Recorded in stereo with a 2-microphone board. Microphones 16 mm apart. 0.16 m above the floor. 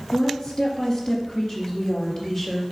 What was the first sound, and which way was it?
A woman speaking, 45° left (ahead or behind).